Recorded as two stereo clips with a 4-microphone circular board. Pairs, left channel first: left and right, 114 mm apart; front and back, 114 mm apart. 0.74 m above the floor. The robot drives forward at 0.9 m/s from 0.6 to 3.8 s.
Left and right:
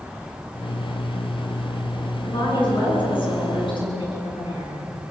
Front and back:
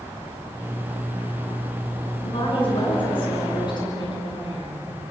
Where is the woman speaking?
40° left, 10 m; by 4.9 s 50° left, 9 m.